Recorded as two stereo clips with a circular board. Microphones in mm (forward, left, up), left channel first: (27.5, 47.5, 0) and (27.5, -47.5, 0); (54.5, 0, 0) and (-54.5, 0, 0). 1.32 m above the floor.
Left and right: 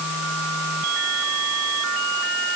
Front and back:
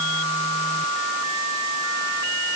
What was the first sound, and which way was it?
Only background noise.